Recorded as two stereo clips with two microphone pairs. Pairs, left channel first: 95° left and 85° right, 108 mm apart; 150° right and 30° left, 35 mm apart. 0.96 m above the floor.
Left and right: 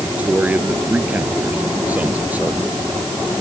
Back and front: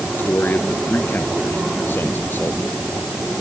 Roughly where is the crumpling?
No crumpling in this recording.